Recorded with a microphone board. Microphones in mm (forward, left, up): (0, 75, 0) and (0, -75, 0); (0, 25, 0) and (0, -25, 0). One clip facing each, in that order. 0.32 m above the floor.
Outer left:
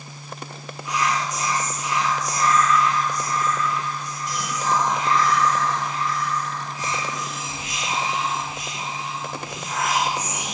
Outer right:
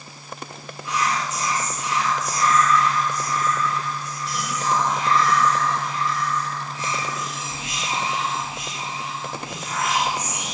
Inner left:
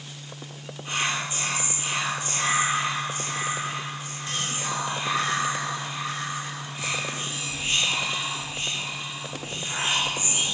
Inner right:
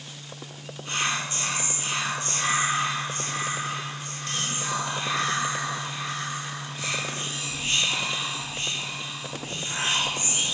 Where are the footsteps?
No footsteps in this recording.